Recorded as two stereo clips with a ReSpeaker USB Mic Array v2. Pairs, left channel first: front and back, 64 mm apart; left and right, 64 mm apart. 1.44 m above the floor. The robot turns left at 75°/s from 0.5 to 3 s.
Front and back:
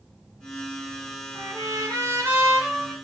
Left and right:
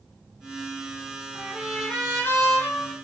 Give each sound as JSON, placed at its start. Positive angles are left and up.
{"t": 1.4, "sound": "a trumpet", "azimuth_deg": -145, "distance_m": 1.0}